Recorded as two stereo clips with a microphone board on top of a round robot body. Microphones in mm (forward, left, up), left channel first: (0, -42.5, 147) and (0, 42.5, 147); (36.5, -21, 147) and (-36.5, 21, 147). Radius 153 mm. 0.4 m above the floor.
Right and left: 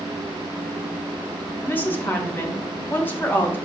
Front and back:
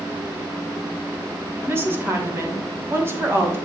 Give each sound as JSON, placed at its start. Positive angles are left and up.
{"t": 1.6, "sound": "a woman speaking", "azimuth_deg": -155, "distance_m": 2.5}